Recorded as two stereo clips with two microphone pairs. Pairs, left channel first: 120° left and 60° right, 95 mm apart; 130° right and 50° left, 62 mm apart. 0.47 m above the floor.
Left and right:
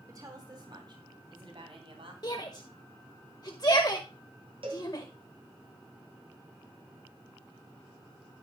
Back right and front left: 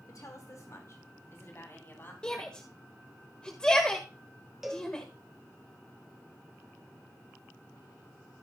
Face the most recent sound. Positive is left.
turn(degrees=-35)